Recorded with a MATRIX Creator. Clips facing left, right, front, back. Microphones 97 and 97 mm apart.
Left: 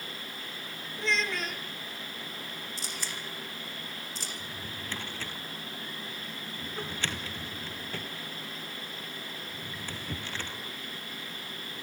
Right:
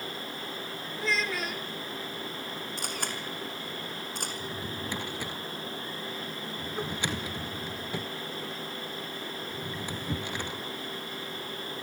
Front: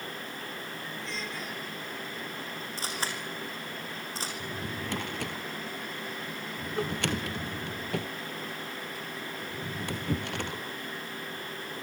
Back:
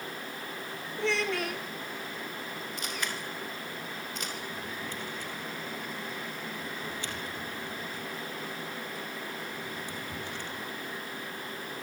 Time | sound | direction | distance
1.0 | a child speaking | 175° right | 2.5 m
2.8 | a camera shutter | 55° right | 4 m
4.4 | a drawer | 15° right | 1.9 m